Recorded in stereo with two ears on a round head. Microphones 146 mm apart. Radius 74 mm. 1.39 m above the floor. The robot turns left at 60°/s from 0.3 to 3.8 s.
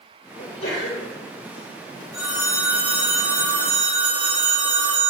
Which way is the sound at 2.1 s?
30° right.